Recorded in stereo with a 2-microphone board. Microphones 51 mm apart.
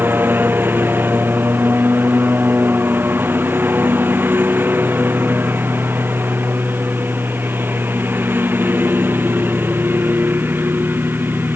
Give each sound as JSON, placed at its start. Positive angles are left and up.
{"t": 0.0, "sound": "a lawn mower", "side_deg": -40}